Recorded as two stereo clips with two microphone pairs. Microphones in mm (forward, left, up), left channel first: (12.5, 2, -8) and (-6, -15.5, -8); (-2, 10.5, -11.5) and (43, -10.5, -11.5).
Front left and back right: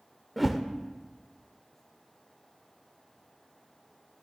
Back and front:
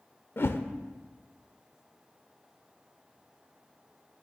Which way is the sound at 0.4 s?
135° left.